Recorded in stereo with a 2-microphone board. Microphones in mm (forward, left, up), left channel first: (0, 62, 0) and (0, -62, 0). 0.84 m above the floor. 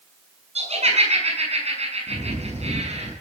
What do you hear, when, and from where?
0.6 s laughter: 60° right (ahead or behind), 7 m
2.1 s a bird: 60° right (ahead or behind), 8 m